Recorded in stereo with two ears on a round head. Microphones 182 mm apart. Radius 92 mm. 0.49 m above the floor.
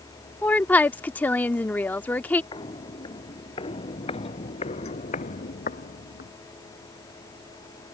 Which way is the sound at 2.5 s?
25° left (ahead or behind).